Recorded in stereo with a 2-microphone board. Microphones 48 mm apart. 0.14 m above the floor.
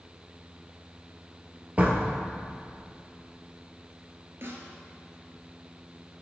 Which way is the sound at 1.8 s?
30° right (ahead or behind).